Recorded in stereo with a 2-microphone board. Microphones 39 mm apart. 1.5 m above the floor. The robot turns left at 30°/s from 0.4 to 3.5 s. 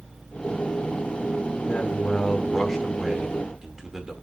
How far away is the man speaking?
About 2.0 m.